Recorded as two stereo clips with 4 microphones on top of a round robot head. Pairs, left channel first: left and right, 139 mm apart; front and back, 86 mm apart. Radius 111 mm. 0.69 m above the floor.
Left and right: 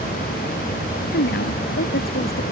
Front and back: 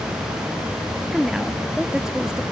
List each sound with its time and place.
1.1 s a woman speaking: 100° left